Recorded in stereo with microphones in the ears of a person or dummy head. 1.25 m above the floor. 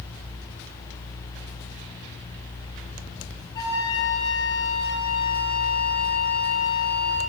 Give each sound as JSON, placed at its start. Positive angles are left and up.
{"t": 3.5, "sound": "a flute", "side_deg": 30, "distance_m": 6.5}